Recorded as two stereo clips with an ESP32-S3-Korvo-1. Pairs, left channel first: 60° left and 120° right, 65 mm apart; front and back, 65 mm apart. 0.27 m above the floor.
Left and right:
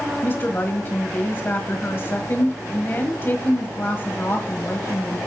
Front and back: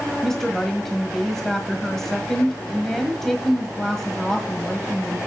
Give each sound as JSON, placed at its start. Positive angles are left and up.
{"t": 0.2, "sound": "a woman speaking", "azimuth_deg": 80, "distance_m": 1.4}